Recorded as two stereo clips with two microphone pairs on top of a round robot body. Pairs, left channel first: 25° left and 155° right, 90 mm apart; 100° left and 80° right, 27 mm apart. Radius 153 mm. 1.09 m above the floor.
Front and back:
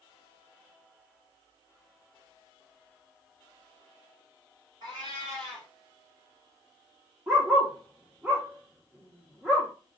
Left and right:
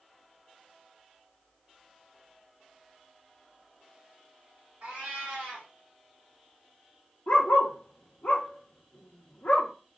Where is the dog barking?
120° left, 0.6 m.